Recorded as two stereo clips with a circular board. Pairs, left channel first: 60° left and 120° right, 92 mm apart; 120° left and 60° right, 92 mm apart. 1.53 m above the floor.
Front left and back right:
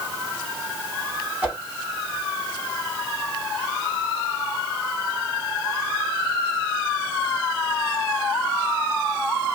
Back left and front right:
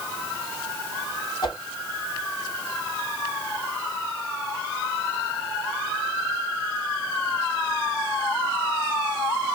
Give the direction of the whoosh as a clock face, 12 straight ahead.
7 o'clock.